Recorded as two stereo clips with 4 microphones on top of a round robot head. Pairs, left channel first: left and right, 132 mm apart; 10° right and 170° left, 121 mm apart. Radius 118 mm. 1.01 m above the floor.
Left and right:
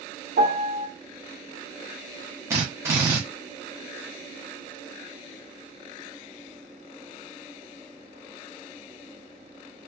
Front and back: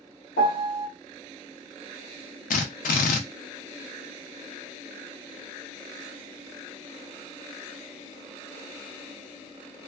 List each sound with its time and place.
0.4 s a piano: 45° right, 1.1 m
2.5 s a drill: 15° right, 0.5 m